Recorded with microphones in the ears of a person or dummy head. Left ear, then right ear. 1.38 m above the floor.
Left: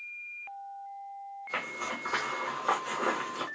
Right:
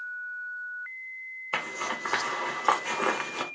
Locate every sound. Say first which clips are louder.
1.5 s a zipper: right 4 dB; 30° right (ahead or behind), 0.6 m